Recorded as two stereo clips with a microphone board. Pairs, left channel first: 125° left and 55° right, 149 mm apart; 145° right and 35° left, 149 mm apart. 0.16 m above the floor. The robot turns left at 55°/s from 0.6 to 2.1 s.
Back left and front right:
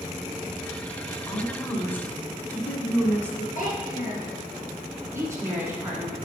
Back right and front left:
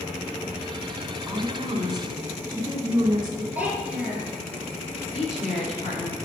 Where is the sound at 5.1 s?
125° right, 2.5 m.